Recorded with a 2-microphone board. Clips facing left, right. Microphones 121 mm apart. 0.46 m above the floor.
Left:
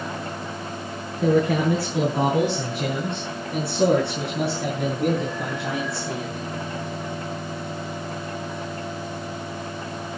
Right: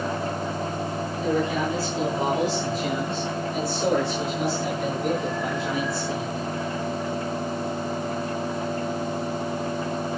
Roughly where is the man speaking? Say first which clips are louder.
Left 5 dB; left.